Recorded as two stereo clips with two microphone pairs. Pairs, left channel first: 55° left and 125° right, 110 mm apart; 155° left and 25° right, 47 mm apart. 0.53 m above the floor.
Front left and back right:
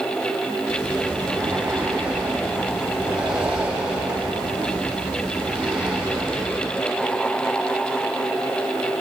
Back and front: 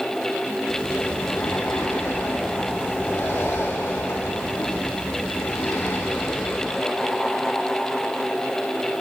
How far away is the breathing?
About 4 m.